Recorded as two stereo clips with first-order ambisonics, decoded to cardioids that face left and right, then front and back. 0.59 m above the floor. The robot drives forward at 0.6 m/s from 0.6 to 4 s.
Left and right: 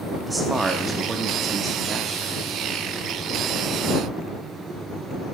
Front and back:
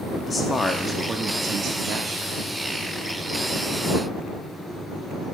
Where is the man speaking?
35° right, 0.6 m; by 2.3 s 170° right, 1.1 m.